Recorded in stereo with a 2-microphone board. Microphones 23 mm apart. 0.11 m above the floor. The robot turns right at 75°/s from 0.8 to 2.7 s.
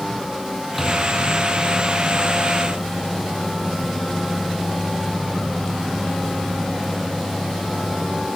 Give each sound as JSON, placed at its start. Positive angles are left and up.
{"t": 0.8, "sound": "a microwave", "azimuth_deg": 0, "distance_m": 2.5}